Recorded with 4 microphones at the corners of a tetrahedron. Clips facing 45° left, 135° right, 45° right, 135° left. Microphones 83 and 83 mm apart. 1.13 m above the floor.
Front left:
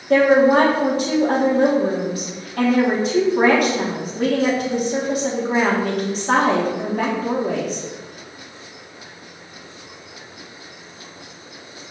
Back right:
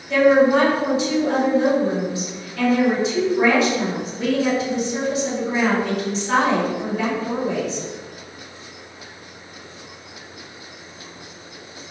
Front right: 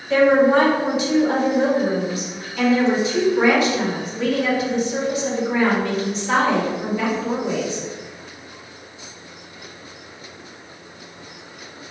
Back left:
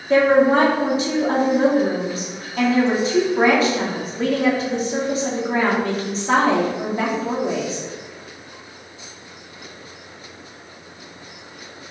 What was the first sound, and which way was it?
A woman speaking, 80° left.